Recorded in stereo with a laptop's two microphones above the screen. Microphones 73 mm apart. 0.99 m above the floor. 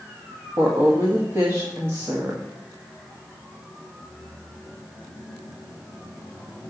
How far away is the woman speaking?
About 1.6 m.